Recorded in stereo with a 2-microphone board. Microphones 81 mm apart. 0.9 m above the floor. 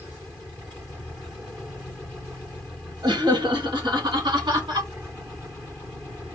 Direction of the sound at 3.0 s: 65° right (ahead or behind).